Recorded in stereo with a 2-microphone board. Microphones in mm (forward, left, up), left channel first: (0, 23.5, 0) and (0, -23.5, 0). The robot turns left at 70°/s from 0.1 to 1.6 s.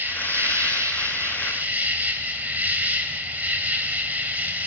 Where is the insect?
40° right, 1.6 m; by 4.7 s 145° right, 1.6 m.